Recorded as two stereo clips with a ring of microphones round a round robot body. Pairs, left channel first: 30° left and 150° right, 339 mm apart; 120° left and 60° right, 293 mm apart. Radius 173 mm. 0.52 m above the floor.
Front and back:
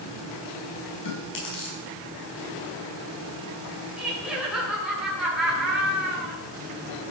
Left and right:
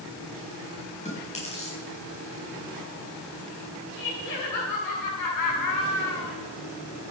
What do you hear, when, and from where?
1.1 s chewing: 55° left, 6 m
4.0 s laughter: 125° left, 6 m